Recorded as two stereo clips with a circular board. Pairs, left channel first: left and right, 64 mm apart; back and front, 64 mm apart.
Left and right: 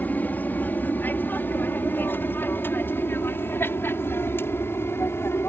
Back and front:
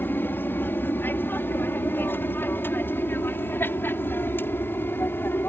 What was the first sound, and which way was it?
An aircraft, 140° left.